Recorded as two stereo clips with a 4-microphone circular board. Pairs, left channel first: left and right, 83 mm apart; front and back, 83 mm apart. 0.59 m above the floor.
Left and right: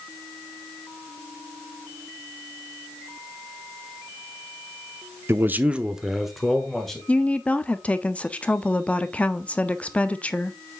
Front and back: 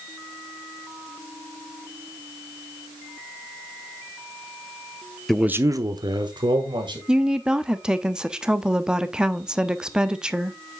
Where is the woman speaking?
120° left, 0.5 m.